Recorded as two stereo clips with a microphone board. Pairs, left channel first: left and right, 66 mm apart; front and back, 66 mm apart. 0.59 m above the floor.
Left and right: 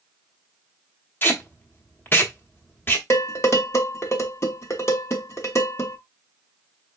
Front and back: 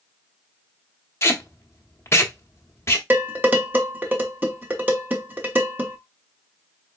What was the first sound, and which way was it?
Tape being pulled, 40° left.